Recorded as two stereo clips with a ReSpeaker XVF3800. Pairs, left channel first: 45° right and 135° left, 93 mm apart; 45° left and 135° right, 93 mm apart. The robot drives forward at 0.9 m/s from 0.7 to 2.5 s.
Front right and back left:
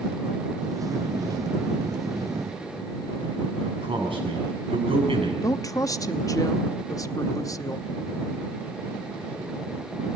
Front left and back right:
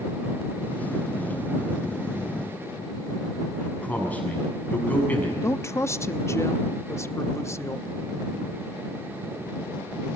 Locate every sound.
3.6 s a man speaking: 120° left, 7 m
5.4 s a woman speaking: 5° right, 0.7 m